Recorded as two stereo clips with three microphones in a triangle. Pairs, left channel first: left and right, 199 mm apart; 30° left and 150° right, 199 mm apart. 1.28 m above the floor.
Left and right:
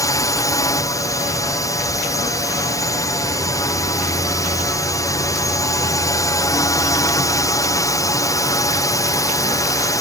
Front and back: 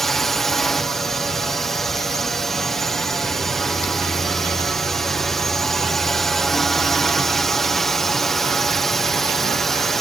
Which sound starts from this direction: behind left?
A drone, at 0.0 s.